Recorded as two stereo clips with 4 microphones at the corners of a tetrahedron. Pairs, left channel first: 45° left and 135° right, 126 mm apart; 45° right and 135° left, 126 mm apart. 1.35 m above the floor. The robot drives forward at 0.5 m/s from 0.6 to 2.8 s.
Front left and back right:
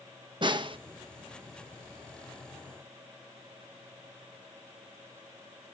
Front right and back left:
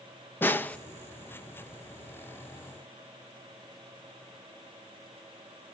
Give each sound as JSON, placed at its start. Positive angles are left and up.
{"t": 0.4, "sound": "a snare drum", "azimuth_deg": -110, "distance_m": 0.6}